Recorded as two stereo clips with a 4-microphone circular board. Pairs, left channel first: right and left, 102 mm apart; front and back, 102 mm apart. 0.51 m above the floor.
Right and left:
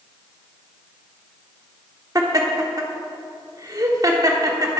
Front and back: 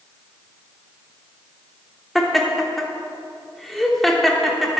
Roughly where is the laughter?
Left.